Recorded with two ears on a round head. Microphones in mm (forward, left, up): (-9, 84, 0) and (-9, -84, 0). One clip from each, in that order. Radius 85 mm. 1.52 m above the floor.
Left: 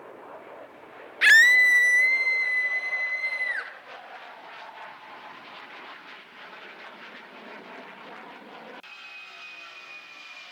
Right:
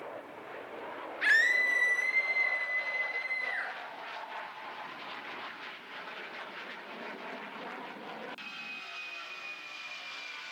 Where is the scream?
65° left (ahead or behind), 0.6 m.